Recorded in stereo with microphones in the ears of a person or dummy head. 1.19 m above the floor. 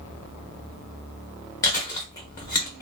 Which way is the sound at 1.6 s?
20° left (ahead or behind).